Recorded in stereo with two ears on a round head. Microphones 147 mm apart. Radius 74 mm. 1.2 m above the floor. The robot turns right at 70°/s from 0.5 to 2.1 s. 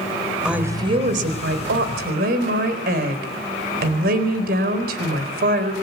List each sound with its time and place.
0.5 s a woman speaking: 175° right, 4 m; by 5.7 s 60° right, 4 m